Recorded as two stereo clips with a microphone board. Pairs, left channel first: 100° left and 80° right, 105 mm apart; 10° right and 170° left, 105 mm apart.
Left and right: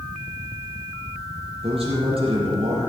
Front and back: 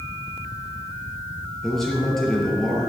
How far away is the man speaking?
About 5 m.